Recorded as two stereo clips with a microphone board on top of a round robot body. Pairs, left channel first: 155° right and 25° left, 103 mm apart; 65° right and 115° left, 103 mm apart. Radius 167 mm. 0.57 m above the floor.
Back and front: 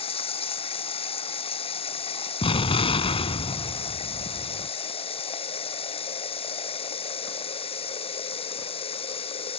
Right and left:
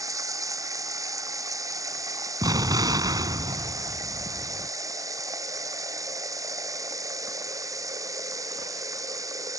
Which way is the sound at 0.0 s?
170° left.